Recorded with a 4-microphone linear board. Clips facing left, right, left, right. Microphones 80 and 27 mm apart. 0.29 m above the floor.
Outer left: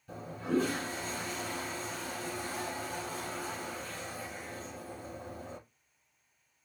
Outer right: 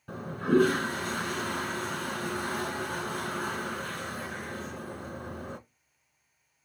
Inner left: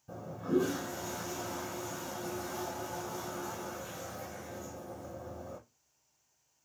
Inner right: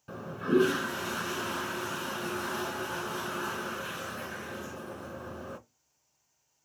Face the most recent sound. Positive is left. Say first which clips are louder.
# outer right 7 dB, inner right 5 dB
turn(degrees=-60)  # may be behind; listen again after turning